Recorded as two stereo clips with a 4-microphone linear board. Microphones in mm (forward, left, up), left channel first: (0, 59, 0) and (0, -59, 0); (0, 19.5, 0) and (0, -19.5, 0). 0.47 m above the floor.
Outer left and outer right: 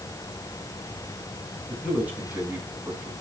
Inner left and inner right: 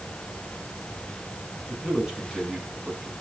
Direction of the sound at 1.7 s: 10° right (ahead or behind).